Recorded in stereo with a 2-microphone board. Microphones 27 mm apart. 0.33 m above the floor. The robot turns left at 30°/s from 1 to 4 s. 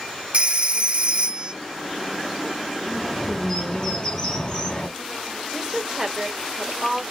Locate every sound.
0.3 s a phone ringing: 45° right (ahead or behind), 0.8 m; by 1.5 s 40° right (ahead or behind), 0.8 m
2.9 s a bird: 175° left, 2.5 m; by 4.9 s 140° left, 2.5 m
5.5 s a woman speaking: 20° right (ahead or behind), 1.3 m